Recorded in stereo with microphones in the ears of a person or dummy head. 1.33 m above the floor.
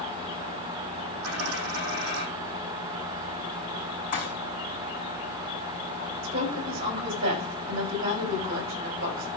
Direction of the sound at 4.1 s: 30° left (ahead or behind).